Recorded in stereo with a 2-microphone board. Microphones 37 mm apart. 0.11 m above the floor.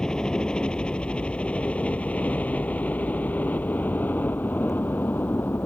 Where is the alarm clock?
No alarm clock in this recording.